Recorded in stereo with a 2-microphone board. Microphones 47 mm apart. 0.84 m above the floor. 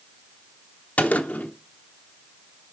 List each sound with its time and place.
1.0 s a gunshot: 35° left (ahead or behind), 0.7 m